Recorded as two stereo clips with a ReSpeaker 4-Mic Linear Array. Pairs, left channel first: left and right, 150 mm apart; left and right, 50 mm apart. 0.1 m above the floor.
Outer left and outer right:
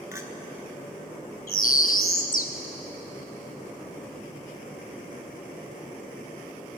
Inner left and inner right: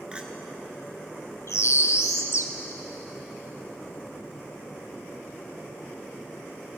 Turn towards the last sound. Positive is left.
turn(degrees=70)  # may be behind; listen again after turning